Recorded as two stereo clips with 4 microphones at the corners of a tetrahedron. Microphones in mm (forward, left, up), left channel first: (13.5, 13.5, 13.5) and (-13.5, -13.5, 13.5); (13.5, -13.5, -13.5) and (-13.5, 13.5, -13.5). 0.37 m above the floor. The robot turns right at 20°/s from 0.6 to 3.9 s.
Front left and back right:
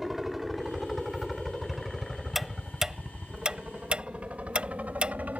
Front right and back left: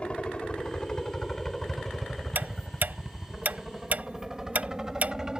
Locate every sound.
0.0 s a helicopter: 60° right; by 5.4 s 160° right
2.4 s ticking: 140° left; by 5.2 s 170° left